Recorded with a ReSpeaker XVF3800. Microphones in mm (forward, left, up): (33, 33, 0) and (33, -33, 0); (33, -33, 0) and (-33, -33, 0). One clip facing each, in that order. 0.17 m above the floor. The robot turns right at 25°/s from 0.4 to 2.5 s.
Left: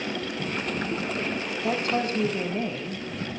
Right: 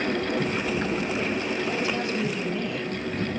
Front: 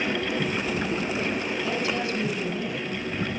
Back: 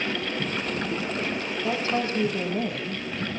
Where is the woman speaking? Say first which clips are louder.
Left 1 dB, back 4 dB; 120° left, 5.5 m; by 3.3 s 145° left, 5.5 m.